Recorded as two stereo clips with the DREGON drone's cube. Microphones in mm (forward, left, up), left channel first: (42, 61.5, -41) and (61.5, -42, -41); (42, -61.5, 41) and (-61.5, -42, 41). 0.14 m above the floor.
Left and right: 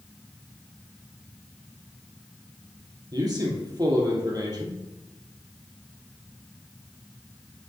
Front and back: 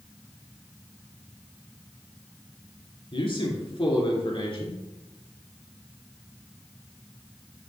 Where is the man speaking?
35° right, 2.5 m.